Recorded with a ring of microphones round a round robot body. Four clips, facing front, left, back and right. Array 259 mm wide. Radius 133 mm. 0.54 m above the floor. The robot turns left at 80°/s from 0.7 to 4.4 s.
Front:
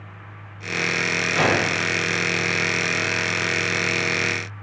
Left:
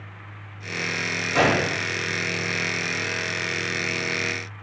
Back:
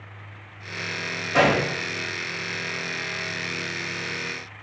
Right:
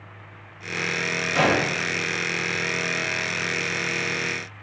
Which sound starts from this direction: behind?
A gunshot, at 1.3 s.